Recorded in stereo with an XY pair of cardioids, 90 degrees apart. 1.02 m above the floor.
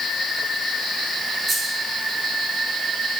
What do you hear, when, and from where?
1.5 s a dropped coin: 50° right, 7 m